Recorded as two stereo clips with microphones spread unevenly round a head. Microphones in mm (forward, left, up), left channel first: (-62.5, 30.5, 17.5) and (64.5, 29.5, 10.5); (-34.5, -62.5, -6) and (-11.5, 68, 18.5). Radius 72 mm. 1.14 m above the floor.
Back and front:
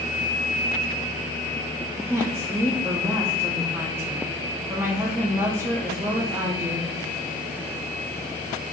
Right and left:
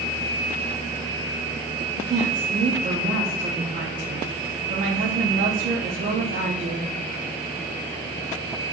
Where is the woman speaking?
65° left, 0.5 m.